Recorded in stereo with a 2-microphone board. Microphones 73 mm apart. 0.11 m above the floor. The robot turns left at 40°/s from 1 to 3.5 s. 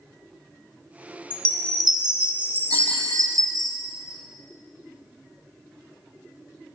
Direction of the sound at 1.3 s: 20° left.